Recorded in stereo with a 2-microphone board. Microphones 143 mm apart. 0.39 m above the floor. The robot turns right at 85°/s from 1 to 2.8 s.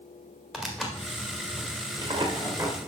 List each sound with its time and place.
0.5 s tearing paper: straight behind, 1.7 m; by 2.9 s 25° right, 1.7 m